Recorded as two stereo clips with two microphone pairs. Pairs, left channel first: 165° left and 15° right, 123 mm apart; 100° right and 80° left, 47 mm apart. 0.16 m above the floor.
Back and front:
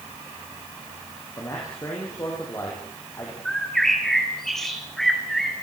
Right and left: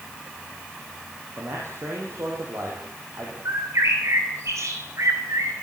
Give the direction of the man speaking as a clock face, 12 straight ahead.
9 o'clock.